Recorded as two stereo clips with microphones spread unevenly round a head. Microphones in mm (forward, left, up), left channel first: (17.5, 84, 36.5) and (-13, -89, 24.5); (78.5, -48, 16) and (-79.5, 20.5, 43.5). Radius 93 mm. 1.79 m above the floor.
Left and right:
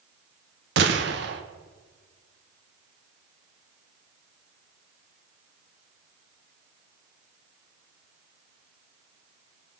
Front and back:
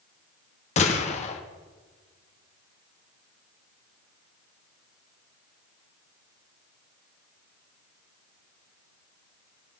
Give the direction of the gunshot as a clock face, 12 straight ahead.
3 o'clock.